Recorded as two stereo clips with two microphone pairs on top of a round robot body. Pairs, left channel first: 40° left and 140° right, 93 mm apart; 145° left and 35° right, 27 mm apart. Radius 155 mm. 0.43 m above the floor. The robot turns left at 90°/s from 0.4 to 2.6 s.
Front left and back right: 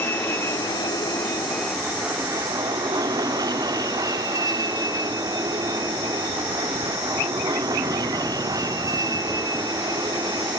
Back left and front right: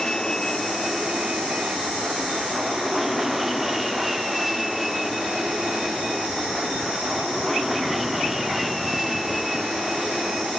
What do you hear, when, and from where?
0.0 s an aircraft: 85° left; by 10.6 s 115° right